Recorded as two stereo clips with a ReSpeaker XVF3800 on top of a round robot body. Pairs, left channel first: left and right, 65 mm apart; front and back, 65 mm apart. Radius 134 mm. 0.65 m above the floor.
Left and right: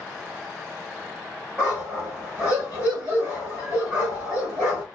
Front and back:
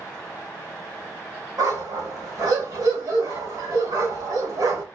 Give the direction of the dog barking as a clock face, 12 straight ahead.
5 o'clock.